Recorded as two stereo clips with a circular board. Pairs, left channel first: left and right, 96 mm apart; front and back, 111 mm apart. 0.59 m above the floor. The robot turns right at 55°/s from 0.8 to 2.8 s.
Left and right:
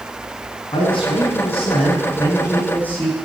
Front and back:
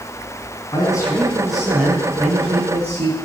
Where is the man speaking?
50° left, 6 m; by 3.1 s 160° left, 6 m.